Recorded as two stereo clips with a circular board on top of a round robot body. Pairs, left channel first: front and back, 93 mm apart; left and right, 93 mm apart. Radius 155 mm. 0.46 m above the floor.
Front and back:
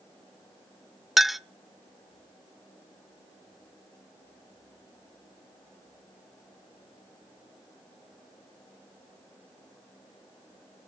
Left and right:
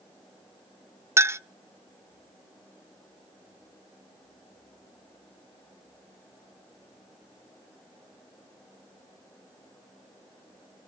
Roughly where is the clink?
Right.